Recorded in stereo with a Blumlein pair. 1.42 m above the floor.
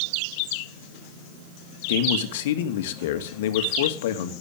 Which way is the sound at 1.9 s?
55° left.